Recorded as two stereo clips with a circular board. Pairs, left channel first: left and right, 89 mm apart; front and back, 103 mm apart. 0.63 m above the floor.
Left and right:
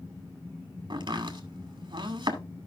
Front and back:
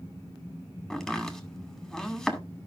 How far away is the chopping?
About 2 m.